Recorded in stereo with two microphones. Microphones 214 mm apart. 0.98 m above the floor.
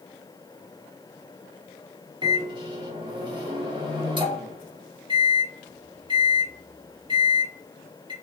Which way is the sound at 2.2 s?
25° right (ahead or behind).